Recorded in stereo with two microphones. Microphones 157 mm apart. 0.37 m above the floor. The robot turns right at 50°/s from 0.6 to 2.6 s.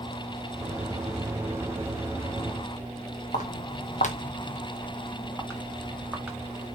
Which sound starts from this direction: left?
Footsteps, at 3.3 s.